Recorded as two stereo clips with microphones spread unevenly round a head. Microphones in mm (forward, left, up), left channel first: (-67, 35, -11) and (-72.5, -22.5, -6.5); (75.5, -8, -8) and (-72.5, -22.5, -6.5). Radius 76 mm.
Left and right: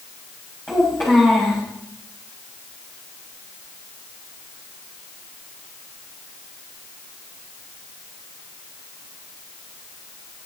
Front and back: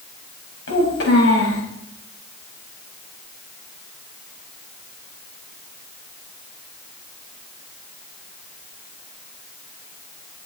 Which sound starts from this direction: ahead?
A child speaking, at 0.7 s.